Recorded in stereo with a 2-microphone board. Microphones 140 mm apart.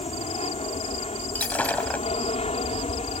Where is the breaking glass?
10° left (ahead or behind).